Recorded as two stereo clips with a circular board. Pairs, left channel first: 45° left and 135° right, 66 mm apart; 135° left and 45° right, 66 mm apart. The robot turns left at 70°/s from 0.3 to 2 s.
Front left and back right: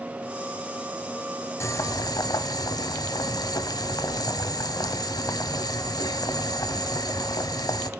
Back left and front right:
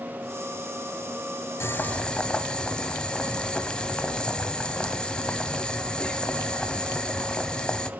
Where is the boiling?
85° left, 0.6 m; by 7.9 s 60° left, 0.6 m.